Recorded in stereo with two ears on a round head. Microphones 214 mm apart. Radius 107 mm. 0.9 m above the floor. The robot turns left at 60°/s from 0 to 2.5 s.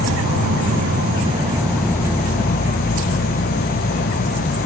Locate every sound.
0.0 s an insect: 75° right, 2 m; by 4.7 s 135° left, 2 m